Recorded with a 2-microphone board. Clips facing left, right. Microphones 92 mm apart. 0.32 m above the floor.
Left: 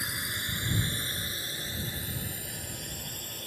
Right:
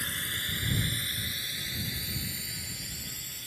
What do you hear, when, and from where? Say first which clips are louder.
0.0 s a drone: left 1 dB; 15° left (ahead or behind); by 3.5 s 50° left (ahead or behind)